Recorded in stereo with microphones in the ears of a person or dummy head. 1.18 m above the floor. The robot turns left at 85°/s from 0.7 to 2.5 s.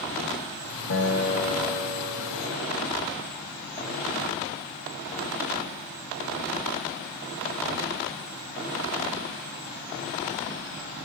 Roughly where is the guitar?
Left.